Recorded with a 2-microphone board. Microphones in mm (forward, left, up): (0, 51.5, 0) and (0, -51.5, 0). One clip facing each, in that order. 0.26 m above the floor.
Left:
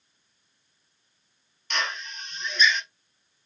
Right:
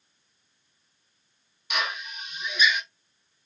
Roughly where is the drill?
Centre.